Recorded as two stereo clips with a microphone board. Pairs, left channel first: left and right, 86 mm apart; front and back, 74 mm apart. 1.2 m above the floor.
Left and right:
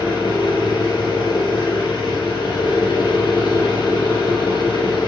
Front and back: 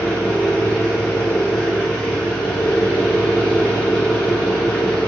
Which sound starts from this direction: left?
An engine running, at 0.0 s.